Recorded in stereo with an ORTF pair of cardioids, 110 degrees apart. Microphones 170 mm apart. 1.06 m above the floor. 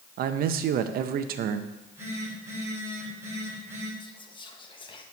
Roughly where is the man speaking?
Ahead right.